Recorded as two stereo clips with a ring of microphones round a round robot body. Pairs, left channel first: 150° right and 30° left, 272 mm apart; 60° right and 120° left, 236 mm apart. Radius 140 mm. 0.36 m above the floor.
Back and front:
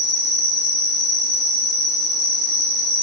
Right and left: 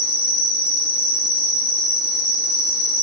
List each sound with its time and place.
0.0 s an insect: 65° right, 0.8 m